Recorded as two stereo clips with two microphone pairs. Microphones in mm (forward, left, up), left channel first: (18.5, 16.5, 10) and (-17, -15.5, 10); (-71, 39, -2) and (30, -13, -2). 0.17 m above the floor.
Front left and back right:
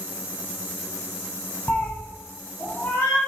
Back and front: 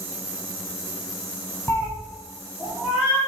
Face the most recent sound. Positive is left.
turn(degrees=50)